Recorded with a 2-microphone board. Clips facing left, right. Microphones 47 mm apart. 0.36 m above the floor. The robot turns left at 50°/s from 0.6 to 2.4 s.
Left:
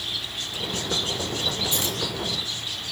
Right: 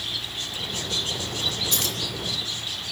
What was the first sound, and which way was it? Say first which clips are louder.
Keys jangling: left 1 dB; 75° right (ahead or behind).